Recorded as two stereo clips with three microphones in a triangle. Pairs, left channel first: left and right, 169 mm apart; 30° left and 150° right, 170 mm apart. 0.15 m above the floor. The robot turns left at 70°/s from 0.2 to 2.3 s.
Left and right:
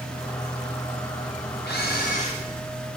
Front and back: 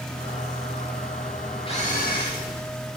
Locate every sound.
1.7 s a camera shutter: 85° left, 8 m; by 2.4 s 40° left, 8 m